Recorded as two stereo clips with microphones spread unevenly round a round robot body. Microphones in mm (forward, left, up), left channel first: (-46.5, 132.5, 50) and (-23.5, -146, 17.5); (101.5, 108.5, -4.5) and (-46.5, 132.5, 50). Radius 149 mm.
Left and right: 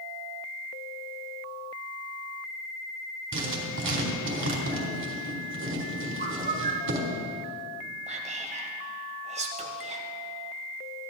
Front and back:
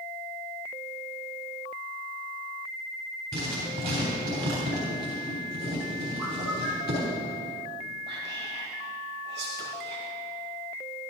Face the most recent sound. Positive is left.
turn(degrees=-150)